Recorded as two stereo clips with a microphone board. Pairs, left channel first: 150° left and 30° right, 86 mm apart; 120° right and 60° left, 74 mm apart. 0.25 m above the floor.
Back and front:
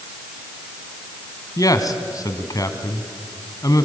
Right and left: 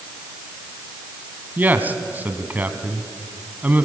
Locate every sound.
1.6 s a man speaking: 120° left, 1.8 m